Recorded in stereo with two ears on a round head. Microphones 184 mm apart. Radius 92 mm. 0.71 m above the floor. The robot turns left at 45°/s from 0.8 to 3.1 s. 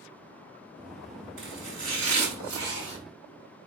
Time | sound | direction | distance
1.4 | chopping | 50° right | 4 m